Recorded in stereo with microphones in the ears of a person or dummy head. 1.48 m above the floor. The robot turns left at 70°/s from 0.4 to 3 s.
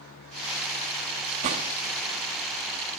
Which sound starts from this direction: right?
A gunshot, at 1.4 s.